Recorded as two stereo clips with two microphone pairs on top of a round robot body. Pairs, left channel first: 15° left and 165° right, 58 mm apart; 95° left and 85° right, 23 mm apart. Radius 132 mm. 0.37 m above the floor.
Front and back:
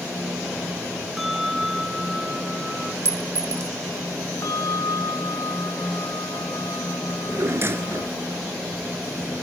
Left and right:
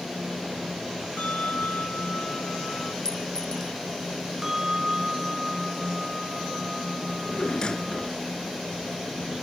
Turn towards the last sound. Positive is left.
turn(degrees=150)